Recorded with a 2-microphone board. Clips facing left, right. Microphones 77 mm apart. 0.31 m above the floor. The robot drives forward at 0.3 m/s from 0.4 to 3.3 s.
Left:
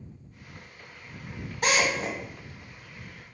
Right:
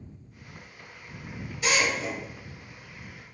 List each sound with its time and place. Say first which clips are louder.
1.6 s a drill: left 1 dB; 45° left (ahead or behind), 0.7 m